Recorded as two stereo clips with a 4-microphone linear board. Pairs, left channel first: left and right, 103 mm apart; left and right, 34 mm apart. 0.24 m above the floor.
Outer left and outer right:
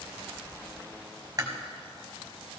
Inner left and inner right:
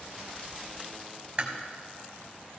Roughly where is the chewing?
Right.